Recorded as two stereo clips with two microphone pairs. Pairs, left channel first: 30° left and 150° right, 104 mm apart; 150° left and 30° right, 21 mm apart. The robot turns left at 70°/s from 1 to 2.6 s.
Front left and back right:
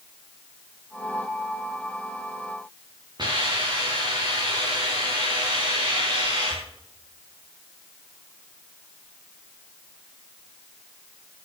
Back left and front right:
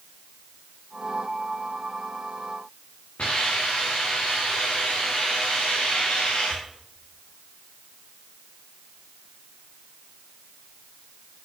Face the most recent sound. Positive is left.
turn(degrees=165)